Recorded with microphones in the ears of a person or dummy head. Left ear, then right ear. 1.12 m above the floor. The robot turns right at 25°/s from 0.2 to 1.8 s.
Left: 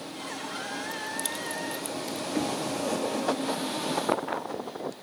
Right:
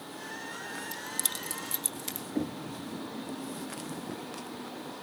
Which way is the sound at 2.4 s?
60° left (ahead or behind).